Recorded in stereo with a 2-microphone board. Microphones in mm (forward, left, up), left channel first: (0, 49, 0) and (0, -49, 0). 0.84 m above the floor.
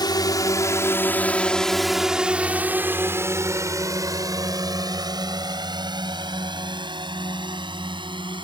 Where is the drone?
45° left (ahead or behind); by 8.4 s 55° right (ahead or behind).